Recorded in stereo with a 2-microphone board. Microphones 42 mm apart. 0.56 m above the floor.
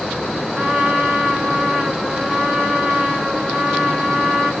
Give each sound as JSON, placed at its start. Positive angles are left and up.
{"t": 0.6, "sound": "a trumpet", "side_deg": -15, "distance_m": 7.0}